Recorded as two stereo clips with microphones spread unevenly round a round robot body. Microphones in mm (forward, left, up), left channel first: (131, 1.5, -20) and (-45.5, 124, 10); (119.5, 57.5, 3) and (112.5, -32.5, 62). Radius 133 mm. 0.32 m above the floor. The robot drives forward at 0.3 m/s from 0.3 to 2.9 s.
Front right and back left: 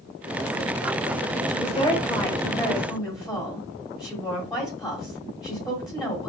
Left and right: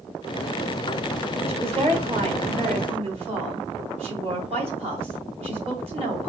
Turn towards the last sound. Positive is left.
turn(degrees=-115)